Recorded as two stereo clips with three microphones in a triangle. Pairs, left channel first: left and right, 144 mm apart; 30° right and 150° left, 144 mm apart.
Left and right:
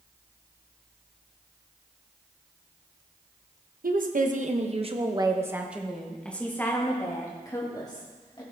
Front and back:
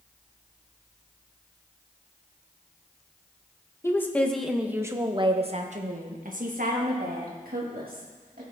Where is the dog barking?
I don't hear a dog barking.